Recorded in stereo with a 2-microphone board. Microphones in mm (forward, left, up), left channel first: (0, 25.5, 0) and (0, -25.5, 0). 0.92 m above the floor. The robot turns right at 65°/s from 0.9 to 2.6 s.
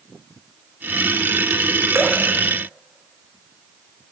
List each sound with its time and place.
1.9 s dripping: 55° right (ahead or behind), 1.1 m; by 2.2 s 45° right (ahead or behind), 1.1 m